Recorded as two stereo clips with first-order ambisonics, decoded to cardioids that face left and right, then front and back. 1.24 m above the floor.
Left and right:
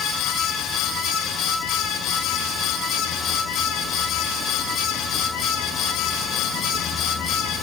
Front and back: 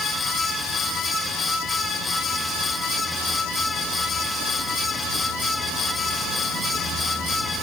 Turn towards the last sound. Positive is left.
No sound to turn to.